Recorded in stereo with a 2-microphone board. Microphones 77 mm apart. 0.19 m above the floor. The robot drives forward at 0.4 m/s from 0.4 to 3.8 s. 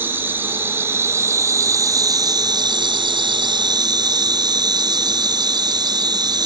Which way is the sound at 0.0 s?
30° right (ahead or behind).